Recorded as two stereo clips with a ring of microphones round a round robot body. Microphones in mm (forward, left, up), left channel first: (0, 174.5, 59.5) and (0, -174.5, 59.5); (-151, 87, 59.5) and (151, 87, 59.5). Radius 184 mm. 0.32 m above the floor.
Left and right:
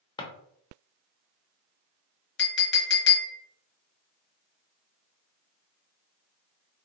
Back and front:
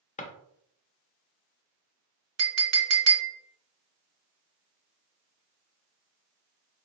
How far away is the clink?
About 1.0 m.